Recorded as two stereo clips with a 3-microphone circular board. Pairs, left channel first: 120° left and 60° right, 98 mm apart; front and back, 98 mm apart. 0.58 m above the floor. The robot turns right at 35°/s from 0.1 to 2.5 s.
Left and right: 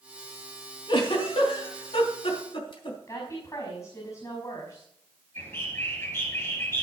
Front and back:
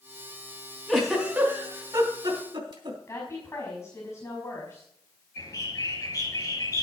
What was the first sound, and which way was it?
A giggle, 85° left.